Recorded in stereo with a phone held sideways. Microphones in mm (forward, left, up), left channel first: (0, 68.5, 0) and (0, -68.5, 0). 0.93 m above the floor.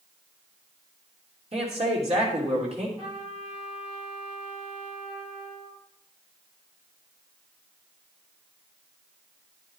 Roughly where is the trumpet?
Right.